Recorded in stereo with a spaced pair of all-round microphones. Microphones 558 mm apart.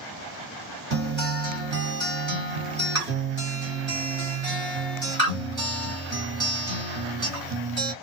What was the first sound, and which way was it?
A guitar, 40° right (ahead or behind).